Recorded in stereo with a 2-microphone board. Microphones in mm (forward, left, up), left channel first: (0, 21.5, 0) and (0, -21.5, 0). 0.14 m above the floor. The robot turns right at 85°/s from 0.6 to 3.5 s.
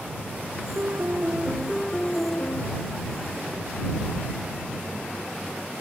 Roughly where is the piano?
Right.